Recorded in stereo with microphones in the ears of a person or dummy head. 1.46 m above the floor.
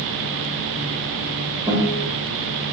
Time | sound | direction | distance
1.7 | a guitar | 20° right (ahead or behind) | 2 m